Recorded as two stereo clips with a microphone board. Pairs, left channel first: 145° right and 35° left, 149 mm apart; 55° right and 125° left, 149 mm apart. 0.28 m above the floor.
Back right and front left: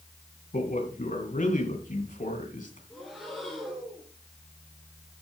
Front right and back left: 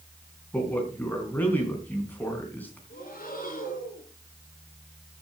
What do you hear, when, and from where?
0.5 s a man speaking: 130° right, 3.5 m
2.9 s breathing: 55° right, 4 m